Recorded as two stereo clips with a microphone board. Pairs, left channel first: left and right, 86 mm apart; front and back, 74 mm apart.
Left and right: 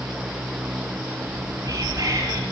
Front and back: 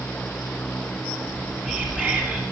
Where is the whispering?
120° right, 1.7 m.